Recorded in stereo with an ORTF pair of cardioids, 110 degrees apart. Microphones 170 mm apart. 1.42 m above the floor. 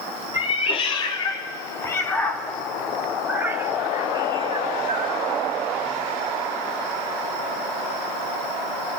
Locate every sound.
0.3 s a cat meowing: 35° left, 2.5 m; by 5.2 s 45° right, 2.0 m